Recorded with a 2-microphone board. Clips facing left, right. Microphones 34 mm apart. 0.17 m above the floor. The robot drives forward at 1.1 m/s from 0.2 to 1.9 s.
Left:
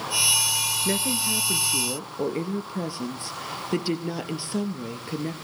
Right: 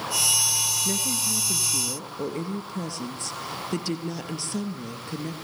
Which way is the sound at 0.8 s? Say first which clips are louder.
Left 3 dB; 30° left (ahead or behind).